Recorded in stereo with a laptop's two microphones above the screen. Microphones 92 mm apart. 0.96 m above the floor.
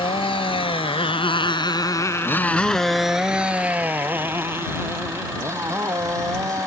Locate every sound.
0.0 s a motorcycle: 80° left; by 6.7 s 35° right (ahead or behind)